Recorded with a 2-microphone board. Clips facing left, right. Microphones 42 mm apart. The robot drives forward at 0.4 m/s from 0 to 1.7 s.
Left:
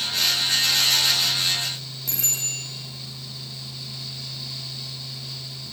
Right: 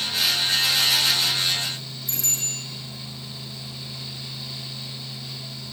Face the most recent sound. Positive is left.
turn(degrees=80)